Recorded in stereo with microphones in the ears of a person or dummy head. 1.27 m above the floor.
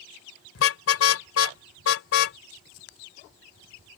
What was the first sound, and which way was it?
A car horn, 80° left.